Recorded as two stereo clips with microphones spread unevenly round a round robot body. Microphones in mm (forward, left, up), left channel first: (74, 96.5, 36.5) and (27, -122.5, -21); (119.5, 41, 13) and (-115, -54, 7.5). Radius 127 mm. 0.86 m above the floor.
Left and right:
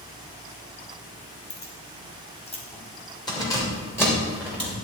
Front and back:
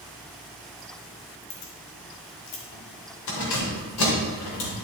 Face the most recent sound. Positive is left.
turn(degrees=-10)